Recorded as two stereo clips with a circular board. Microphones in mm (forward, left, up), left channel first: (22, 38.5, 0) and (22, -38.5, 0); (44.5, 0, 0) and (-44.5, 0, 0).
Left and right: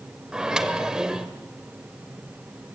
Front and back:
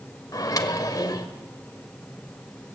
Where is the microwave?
10° right, 1.5 m.